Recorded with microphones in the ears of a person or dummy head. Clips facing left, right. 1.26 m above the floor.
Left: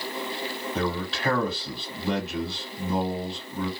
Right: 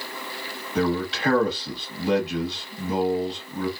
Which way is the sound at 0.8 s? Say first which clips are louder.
Right 6 dB; centre (ahead or behind).